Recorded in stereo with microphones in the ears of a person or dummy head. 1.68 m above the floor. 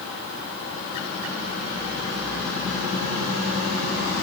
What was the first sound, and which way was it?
Only background noise.